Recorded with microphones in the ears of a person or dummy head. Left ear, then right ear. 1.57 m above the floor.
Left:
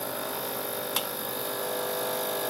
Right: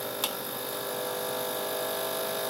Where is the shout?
I don't hear a shout.